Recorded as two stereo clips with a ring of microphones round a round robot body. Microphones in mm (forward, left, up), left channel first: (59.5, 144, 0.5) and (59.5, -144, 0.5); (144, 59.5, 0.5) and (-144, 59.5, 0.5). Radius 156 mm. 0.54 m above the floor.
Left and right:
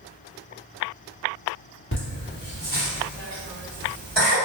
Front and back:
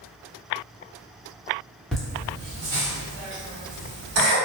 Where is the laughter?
85° left, 1.5 m; by 4.3 s 165° left, 2.5 m.